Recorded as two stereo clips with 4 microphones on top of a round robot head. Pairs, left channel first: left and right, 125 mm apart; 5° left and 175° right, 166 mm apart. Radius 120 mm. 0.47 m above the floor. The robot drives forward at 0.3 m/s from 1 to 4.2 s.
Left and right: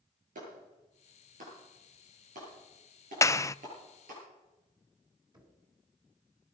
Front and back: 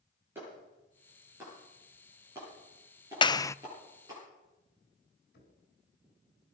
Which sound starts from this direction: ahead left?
A clap, at 3.2 s.